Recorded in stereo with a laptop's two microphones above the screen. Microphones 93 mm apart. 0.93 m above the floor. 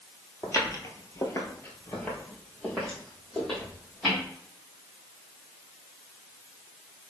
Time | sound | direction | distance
0.4 | footsteps | 35° left (ahead or behind) | 1.3 m